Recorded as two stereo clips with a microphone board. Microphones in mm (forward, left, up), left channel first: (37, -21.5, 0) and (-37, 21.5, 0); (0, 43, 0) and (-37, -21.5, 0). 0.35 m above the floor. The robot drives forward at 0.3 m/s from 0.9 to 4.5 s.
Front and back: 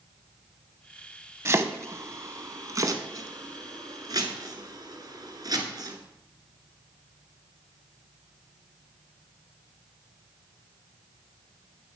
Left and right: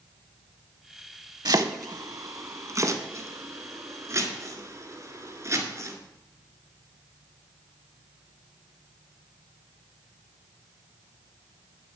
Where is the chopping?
150° right, 0.6 m; by 6.0 s 170° right, 1.4 m.